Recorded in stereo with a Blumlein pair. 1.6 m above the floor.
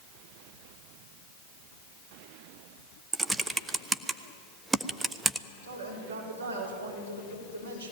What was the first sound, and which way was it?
Typing on a keyboard, 10° right.